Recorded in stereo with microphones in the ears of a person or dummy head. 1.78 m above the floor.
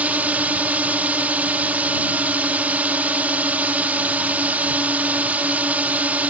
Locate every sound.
0.0 s a drone: 5° right (ahead or behind)